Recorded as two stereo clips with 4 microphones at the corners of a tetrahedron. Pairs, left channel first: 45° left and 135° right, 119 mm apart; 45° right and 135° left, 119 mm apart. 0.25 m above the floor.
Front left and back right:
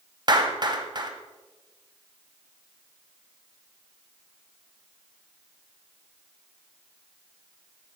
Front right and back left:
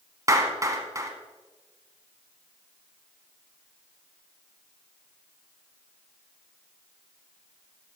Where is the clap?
170° right, 1.4 m.